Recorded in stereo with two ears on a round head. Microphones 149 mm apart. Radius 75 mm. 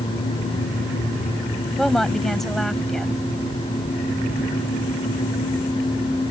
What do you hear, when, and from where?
1.8 s a woman speaking: centre (ahead or behind)